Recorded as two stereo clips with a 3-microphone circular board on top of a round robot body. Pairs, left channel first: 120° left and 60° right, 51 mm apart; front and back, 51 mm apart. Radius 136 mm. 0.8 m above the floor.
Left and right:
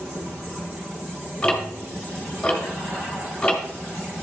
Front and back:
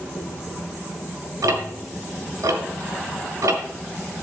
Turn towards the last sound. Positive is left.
turn(degrees=-165)